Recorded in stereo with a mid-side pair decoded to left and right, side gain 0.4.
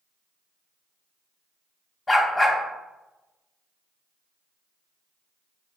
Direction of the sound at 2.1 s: 30° left.